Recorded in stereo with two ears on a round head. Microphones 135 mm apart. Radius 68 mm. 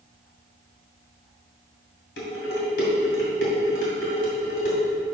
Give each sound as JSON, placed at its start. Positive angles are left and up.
{"t": 2.2, "sound": "dishes clattering", "side_deg": 80, "distance_m": 2.5}